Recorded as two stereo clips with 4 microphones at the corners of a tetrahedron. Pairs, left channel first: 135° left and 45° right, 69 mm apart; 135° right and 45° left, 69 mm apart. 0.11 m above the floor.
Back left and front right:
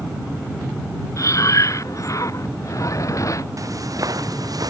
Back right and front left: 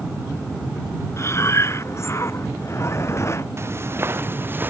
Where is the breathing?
175° left.